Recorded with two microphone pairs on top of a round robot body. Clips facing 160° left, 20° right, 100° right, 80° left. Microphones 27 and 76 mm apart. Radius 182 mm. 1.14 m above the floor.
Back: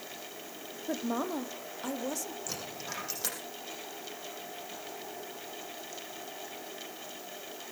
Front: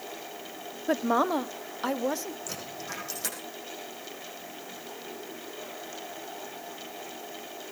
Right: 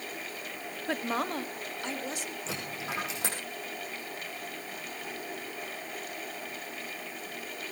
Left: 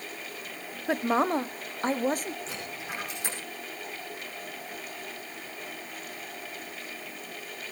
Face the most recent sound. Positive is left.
turn(degrees=-115)